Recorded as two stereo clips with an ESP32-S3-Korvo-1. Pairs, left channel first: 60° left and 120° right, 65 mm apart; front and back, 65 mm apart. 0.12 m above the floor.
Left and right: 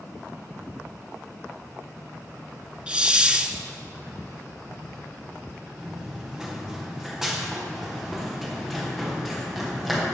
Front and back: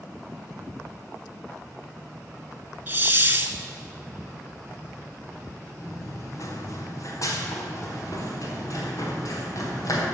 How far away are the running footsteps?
About 2.5 m.